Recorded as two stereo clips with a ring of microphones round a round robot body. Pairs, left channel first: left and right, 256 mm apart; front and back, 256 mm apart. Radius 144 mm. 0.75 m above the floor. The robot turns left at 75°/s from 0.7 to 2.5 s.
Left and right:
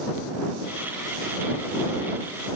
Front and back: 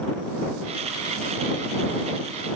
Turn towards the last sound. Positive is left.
No sound to turn to.